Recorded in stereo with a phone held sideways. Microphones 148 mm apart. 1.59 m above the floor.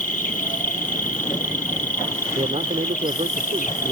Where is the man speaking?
45° right (ahead or behind).